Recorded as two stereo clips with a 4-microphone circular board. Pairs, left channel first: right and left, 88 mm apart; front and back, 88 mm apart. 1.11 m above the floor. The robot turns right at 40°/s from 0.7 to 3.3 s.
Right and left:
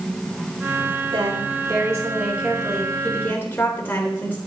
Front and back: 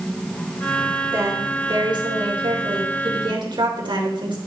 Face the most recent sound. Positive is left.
turn(degrees=-160)